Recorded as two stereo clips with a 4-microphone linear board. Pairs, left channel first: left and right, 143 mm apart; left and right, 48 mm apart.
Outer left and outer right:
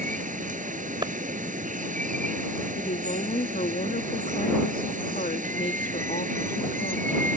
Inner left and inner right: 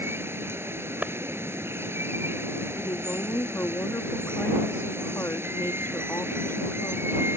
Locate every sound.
0.0 s running water: 60° right (ahead or behind)
1.0 s a clap: 30° right (ahead or behind)
2.8 s a woman speaking: 70° left (ahead or behind)